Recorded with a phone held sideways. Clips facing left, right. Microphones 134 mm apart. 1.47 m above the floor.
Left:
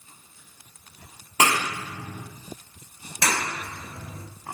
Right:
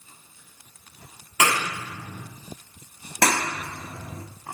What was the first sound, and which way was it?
A clap, 35° left (ahead or behind).